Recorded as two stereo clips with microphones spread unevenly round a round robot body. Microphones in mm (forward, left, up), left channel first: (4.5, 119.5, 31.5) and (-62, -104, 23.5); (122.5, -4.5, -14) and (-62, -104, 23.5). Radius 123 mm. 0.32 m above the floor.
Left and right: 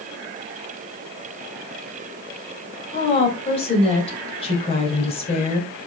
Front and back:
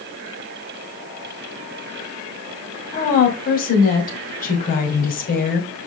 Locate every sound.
2.9 s a woman speaking: 10° left, 2 m